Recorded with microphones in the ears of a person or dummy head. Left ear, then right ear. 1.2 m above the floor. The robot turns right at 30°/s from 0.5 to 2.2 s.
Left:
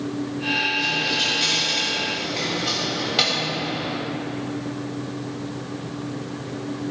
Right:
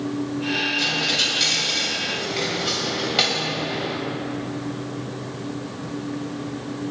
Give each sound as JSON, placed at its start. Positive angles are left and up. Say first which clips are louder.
{"t": 0.8, "sound": "a dropped coin", "louder": "right 1 dB", "azimuth_deg": -45, "distance_m": 3.5}